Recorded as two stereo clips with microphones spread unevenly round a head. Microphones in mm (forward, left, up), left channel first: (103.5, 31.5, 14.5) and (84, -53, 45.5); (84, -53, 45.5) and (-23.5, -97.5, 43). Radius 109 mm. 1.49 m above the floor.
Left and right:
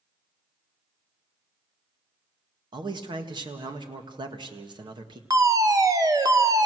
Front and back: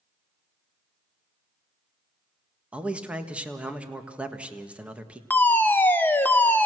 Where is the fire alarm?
45° right, 1.5 m.